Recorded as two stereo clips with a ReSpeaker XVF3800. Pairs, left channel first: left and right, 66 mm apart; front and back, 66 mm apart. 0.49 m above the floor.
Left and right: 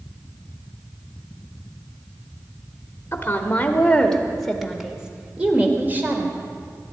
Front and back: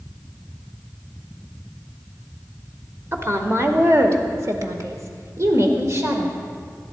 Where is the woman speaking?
140° left, 1.7 m; by 6.3 s 140° right, 2.0 m.